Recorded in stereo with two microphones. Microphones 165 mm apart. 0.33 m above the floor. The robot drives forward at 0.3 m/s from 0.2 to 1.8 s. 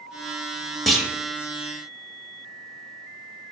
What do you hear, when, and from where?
0.9 s a clunk: centre (ahead or behind), 0.5 m